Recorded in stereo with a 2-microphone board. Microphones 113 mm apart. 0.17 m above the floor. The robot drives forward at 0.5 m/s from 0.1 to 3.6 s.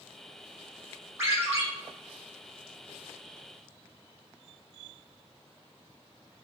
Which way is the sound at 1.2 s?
25° right (ahead or behind).